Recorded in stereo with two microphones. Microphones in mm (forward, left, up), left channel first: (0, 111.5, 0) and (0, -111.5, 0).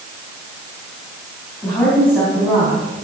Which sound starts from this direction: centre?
A woman speaking, at 1.6 s.